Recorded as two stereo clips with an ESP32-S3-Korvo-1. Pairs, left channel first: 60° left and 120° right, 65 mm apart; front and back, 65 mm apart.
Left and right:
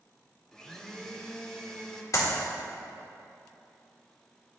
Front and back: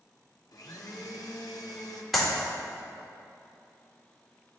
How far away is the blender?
About 0.8 m.